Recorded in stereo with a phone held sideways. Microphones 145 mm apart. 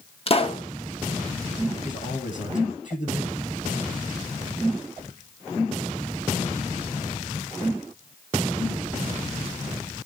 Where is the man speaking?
60° left (ahead or behind), 7.5 m.